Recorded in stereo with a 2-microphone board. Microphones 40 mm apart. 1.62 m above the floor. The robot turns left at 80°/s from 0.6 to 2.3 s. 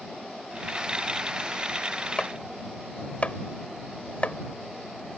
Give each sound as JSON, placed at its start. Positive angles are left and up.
{"t": 2.2, "sound": "chopping", "side_deg": 25}